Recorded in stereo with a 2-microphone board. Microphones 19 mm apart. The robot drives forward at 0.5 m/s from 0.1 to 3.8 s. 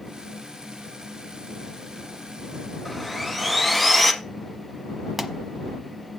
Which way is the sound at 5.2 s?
5° right (ahead or behind).